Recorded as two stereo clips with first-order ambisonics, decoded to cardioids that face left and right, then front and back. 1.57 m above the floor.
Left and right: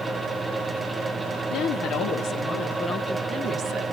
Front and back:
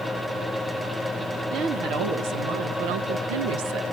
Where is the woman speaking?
140° left, 2.5 m; by 3.8 s 145° right, 1.2 m.